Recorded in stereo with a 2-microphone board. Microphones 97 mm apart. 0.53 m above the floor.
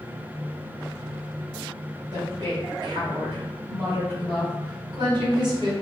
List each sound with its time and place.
2.1 s a woman speaking: 50° right (ahead or behind), 1.9 m